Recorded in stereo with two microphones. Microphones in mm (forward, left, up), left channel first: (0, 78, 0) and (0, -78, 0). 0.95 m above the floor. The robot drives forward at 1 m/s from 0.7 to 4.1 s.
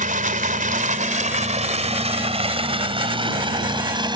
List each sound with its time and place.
0.0 s running water: 55° right (ahead or behind); by 4.2 s 25° right (ahead or behind)